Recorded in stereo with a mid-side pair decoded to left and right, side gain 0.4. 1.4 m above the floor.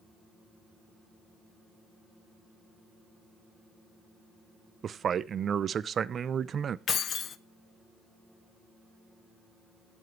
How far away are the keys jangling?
About 0.7 m.